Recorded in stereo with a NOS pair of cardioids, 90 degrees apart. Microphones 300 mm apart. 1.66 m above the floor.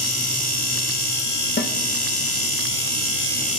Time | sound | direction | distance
1.6 | a snare drum | 35° left | 1.8 m